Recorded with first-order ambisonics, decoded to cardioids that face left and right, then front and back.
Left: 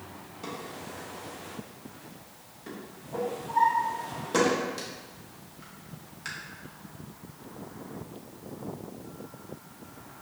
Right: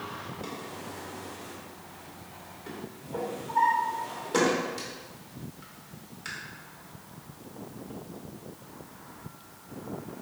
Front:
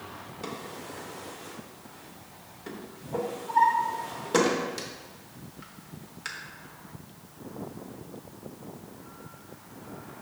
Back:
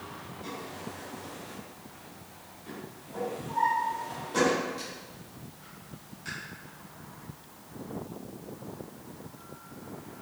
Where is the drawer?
10° left, 0.8 m.